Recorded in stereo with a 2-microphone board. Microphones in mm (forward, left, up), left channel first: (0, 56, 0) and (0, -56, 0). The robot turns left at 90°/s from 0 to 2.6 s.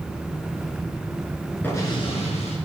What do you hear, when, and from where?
1.6 s an explosion: 165° left, 4 m; by 2.6 s 85° left, 4 m